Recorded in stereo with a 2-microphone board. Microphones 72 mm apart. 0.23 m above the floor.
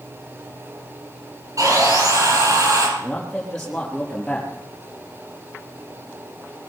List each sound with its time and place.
1.6 s sawing: 55° right (ahead or behind), 6.5 m
3.0 s a man speaking: 5° left (ahead or behind), 5.5 m